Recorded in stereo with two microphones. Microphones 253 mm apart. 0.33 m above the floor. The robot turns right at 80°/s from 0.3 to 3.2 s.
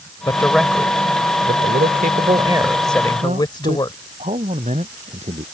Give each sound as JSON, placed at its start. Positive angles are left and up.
{"t": 0.3, "sound": "a man speaking", "azimuth_deg": 155}
{"t": 3.2, "sound": "a man speaking", "side_deg": -30}